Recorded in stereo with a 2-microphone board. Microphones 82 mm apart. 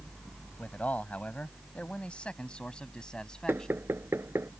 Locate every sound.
0.6 s a man speaking: 20° left (ahead or behind); by 3.8 s 5° left (ahead or behind)
3.5 s knocking: 30° right (ahead or behind)